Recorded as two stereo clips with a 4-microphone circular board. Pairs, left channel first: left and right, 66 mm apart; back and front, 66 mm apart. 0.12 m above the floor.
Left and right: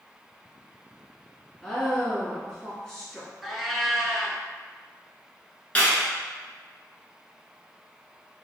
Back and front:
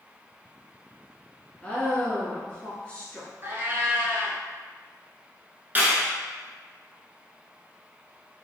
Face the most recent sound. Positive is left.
turn(degrees=35)